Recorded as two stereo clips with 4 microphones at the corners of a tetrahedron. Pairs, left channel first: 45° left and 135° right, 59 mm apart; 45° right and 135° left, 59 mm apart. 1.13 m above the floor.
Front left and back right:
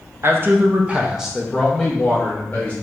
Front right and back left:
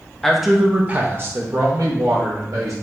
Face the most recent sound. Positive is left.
turn(degrees=115)